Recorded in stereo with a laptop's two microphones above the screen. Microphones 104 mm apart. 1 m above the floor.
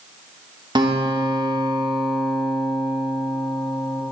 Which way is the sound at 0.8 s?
45° right (ahead or behind).